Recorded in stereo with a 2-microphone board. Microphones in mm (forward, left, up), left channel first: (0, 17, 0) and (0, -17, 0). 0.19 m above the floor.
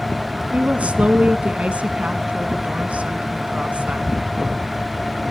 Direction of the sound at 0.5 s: 45° right (ahead or behind).